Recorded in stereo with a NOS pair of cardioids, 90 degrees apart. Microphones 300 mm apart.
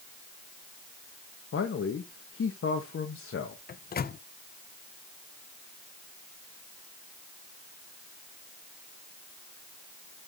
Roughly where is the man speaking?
Ahead left.